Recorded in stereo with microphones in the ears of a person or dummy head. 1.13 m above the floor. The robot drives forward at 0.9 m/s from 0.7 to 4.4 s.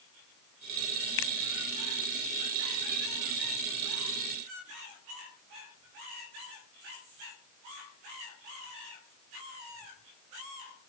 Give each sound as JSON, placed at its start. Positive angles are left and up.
{"t": 1.2, "sound": "a finger snap", "side_deg": 70}